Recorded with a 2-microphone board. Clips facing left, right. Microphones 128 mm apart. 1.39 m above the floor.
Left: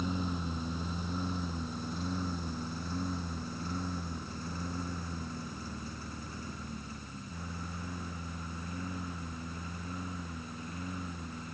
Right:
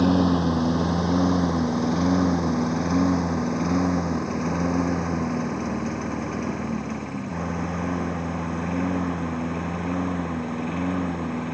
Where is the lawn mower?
80° right; by 11.6 s 75° right (ahead or behind).